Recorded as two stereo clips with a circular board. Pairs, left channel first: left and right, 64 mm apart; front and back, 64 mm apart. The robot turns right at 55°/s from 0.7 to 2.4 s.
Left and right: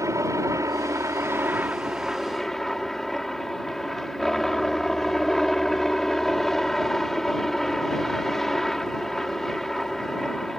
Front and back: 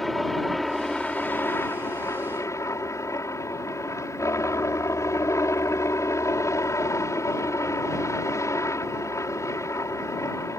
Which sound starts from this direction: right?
A helicopter, at 0.0 s.